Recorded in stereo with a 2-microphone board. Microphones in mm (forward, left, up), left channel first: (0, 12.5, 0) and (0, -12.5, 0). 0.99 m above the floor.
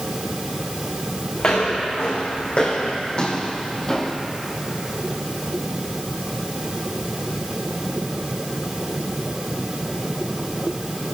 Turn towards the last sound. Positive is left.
turn(degrees=15)  # may be behind; listen again after turning